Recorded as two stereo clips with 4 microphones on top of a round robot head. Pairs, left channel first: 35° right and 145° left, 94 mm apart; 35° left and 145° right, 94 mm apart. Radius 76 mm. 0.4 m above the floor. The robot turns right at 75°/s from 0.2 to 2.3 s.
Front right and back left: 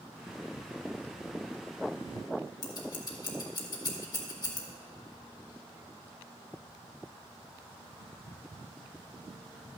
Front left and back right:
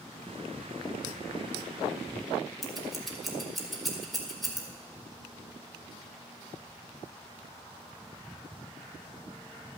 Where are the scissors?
55° right, 1.9 m.